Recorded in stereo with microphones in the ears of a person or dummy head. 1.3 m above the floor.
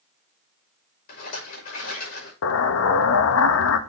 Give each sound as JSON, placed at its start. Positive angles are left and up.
{"t": 1.1, "sound": "a rattle", "side_deg": 45, "distance_m": 5.5}
{"t": 2.4, "sound": "an explosion", "side_deg": 70, "distance_m": 1.0}